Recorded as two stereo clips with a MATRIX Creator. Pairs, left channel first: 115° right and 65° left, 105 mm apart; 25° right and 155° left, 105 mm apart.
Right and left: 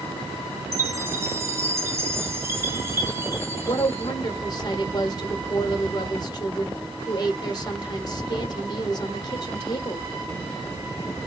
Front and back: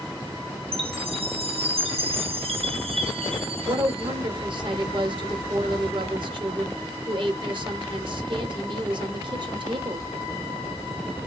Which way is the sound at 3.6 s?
160° right.